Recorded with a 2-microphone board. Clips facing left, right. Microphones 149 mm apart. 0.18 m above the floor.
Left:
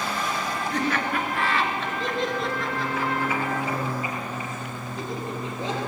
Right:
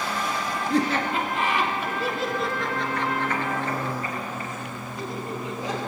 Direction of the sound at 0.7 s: 35° right (ahead or behind).